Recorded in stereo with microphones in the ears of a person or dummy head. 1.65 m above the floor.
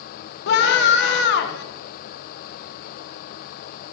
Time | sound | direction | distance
0.5 | a scream | 65° left (ahead or behind) | 1.7 m